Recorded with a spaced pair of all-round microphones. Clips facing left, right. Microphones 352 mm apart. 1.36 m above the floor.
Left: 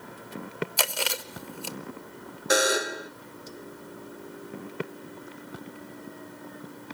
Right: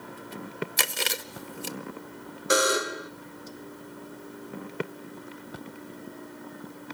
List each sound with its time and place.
0.8 s chewing: 30° right (ahead or behind), 0.7 m
2.5 s a buzzer: 5° right (ahead or behind), 0.5 m